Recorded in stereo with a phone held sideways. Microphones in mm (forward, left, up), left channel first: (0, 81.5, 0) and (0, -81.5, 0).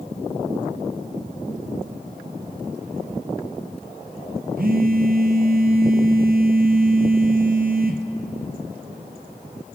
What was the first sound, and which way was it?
A phone buzzing, 65° right (ahead or behind).